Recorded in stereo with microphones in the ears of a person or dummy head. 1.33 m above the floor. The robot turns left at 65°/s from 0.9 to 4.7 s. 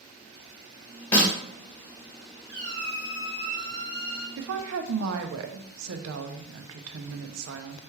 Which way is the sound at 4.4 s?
70° right (ahead or behind).